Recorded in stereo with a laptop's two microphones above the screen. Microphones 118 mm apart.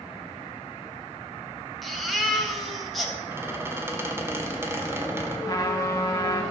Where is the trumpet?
25° left (ahead or behind), 1.3 m.